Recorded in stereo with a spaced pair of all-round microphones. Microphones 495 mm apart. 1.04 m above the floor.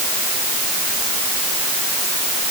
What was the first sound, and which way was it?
Only background noise.